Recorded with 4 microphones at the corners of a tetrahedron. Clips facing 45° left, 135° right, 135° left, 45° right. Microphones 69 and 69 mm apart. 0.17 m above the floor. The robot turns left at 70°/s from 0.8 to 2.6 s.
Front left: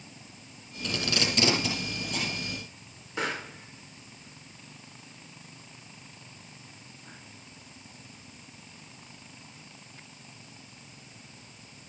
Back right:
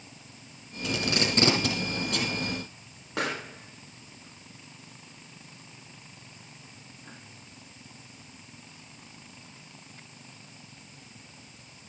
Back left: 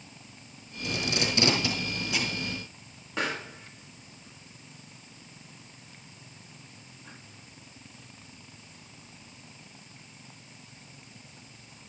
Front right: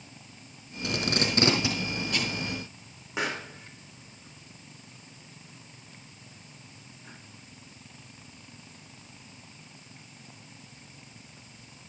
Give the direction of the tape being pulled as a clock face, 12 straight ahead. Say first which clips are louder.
Back right 2 dB, front right 2 dB; 2 o'clock.